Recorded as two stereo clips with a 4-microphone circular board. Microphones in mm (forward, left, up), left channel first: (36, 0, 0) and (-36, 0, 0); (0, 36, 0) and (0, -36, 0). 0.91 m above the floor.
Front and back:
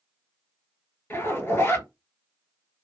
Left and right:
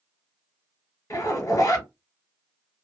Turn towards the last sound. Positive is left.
turn(degrees=55)